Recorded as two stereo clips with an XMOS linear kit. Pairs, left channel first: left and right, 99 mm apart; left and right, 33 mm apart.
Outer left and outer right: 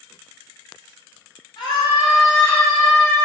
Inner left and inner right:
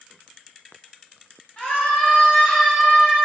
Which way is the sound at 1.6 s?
45° left (ahead or behind).